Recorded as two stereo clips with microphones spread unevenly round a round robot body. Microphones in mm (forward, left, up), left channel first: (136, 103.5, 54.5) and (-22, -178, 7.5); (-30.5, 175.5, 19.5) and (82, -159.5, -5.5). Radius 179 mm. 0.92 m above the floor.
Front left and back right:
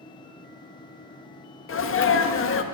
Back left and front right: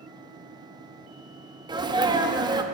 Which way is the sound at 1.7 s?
5° left.